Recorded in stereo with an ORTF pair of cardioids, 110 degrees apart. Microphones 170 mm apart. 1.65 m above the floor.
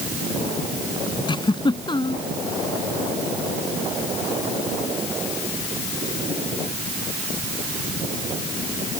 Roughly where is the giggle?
Ahead left.